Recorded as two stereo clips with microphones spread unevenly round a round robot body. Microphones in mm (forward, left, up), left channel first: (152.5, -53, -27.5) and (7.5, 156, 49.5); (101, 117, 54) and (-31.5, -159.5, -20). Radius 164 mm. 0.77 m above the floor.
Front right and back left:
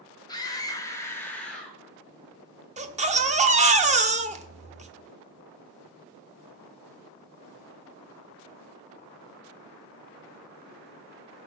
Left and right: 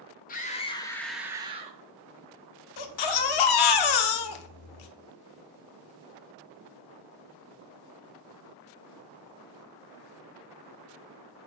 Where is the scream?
5° right, 1.1 m; by 1.8 s 120° right, 0.9 m.